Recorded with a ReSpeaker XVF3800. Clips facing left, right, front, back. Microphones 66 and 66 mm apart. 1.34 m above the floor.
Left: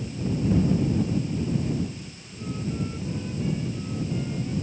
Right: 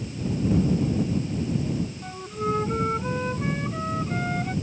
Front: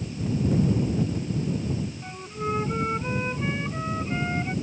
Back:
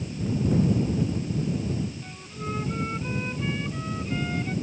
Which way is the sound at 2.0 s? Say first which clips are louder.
Right 9 dB, front 5 dB; 65° right.